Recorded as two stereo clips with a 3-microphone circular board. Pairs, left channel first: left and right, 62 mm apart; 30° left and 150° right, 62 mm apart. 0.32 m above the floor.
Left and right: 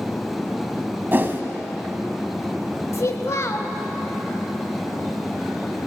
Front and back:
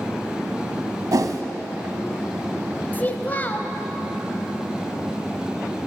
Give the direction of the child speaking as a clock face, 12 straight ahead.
9 o'clock.